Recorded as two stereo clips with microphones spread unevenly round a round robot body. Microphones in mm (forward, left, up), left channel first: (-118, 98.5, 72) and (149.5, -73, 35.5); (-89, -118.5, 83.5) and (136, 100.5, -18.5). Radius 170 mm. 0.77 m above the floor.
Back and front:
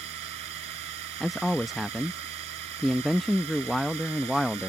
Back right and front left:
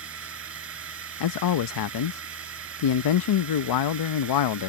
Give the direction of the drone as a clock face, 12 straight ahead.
12 o'clock.